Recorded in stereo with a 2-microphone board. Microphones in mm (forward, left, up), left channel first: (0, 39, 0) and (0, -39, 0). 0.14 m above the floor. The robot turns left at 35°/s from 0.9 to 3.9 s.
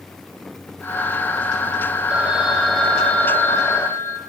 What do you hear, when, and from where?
2.1 s a phone ringing: 160° right, 3 m; by 4.2 s 135° left, 3 m